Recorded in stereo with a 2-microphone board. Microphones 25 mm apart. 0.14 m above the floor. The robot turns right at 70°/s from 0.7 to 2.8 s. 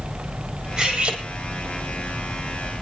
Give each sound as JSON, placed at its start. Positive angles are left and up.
{"t": 0.8, "sound": "cutlery clinking", "azimuth_deg": -160, "distance_m": 3.5}